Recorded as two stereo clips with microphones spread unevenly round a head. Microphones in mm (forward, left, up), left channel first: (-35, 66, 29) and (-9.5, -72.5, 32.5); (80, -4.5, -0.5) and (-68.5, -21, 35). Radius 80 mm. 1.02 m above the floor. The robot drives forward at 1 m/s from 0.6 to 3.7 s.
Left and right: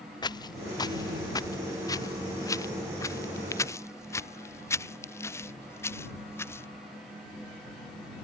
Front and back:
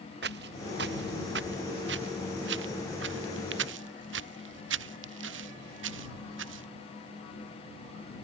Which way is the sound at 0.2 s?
165° left.